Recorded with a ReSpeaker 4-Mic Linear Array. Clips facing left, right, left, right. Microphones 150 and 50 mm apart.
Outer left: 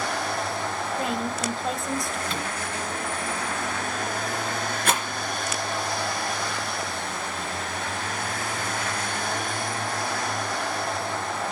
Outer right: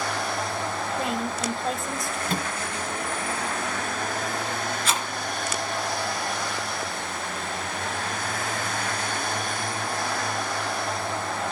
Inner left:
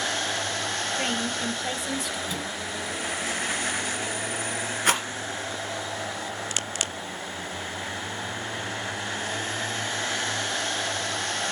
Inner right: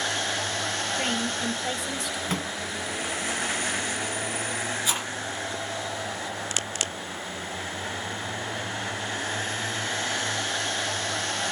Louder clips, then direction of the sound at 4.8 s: Outer left 4 dB, inner left 5 dB; 55° left (ahead or behind).